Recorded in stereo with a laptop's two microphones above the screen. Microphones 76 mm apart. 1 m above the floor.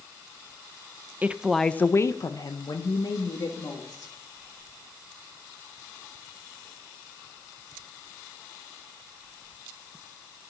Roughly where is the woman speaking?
Right.